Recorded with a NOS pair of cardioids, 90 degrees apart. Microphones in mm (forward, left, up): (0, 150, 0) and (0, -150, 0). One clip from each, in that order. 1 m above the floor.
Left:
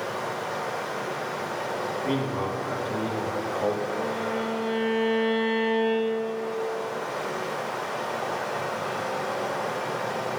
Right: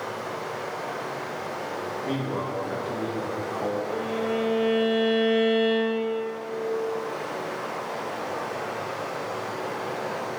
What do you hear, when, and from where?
0.0 s running water: 45° left, 2.5 m
2.0 s a man speaking: 10° left, 1.9 m
3.9 s a violin: 65° right, 2.5 m